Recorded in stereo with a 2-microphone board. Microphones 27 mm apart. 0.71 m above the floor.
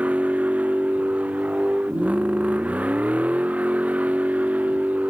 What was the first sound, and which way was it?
A vehicle, 55° right (ahead or behind).